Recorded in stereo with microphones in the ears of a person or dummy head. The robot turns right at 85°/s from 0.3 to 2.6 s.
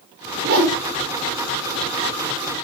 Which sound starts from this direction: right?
A whoosh, at 0.4 s.